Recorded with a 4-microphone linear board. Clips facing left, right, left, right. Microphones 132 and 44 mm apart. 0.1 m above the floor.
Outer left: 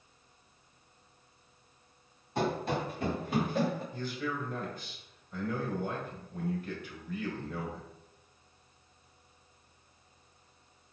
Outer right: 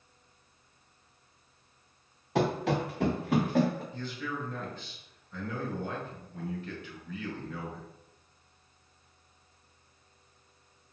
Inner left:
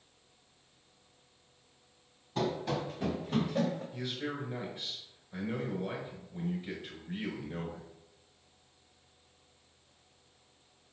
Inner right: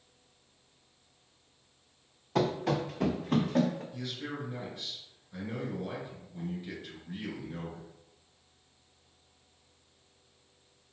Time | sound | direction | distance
2.4 | running footsteps | 90° right | 0.9 m
3.9 | a man speaking | 10° left (ahead or behind) | 1.4 m